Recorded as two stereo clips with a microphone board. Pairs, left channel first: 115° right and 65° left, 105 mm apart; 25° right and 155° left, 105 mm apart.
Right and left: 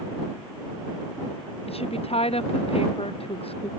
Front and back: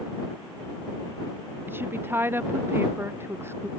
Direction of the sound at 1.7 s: 135° right.